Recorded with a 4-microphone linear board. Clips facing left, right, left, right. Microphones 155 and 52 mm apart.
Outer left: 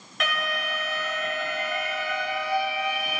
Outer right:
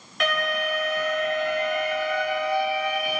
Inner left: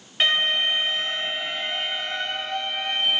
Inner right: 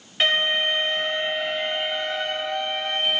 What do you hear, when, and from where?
0.2 s an alarm: centre (ahead or behind), 2.5 m